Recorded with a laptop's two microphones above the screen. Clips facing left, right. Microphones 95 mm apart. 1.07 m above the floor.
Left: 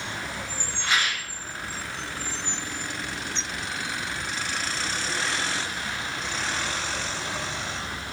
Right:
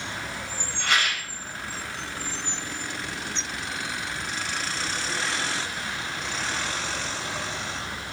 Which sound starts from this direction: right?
A rattle, at 0.8 s.